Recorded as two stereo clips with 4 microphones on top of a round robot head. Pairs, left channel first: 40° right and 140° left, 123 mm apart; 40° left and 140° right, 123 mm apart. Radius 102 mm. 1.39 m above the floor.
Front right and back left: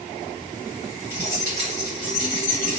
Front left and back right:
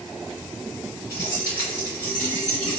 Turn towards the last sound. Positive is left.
turn(degrees=-20)